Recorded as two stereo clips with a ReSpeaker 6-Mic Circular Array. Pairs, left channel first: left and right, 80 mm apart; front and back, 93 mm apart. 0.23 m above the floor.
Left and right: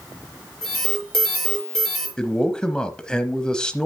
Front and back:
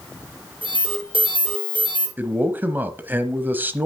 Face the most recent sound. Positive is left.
turn(degrees=155)